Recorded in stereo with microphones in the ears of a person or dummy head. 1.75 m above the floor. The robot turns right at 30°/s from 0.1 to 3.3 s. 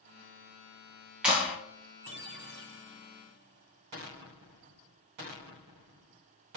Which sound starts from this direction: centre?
A clap, at 1.2 s.